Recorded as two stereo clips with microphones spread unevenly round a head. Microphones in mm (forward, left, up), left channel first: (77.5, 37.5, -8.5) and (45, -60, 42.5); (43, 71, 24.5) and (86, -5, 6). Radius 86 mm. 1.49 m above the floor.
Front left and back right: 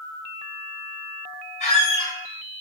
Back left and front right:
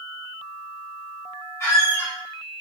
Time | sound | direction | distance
1.6 | a squeak | 115° left | 1.7 m